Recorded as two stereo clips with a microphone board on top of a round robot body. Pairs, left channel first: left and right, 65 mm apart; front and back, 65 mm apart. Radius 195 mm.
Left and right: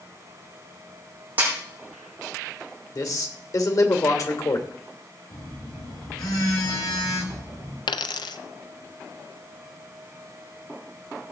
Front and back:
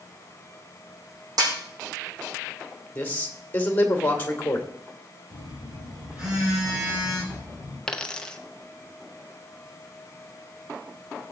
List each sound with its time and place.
1.4 s a snare drum: 155° right, 5 m
3.0 s a man speaking: 60° left, 2.5 m
5.3 s a phone buzzing: 105° left, 10 m
7.9 s a dropped coin: 80° left, 0.6 m